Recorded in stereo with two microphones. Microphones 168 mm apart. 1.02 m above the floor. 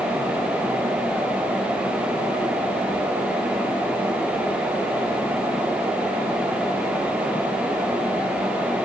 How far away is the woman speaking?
I don't hear a woman speaking.